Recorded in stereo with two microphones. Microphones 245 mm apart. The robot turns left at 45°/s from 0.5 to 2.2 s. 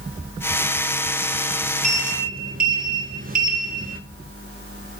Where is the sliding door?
30° right (ahead or behind), 0.5 m; by 4.0 s 35° right (ahead or behind), 0.5 m.